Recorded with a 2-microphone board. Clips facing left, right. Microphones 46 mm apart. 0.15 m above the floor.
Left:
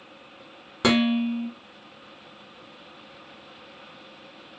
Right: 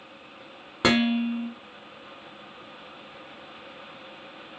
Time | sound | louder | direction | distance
0.8 | dishes clattering | left 1 dB | 10° right (ahead or behind) | 0.9 m